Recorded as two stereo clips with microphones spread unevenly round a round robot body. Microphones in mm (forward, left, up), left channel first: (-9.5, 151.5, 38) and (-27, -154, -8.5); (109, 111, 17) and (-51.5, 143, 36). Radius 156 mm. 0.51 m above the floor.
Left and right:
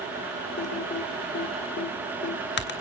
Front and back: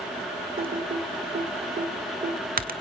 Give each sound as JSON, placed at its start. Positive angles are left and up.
{"t": 0.6, "sound": "typing on a keyboard", "azimuth_deg": 145, "distance_m": 2.0}